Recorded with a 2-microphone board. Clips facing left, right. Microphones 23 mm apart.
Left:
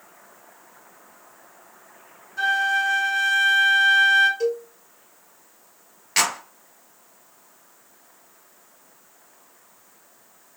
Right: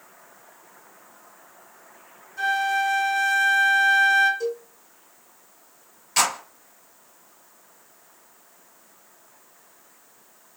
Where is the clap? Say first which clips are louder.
Even; 40° left (ahead or behind), 2.5 m.